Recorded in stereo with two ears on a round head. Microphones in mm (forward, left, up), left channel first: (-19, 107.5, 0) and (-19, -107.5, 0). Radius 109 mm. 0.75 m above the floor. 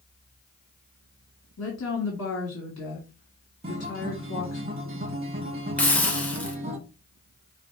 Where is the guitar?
25° right (ahead or behind), 1.2 m.